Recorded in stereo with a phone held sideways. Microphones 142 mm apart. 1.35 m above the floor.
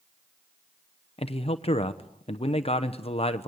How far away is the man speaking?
About 0.9 m.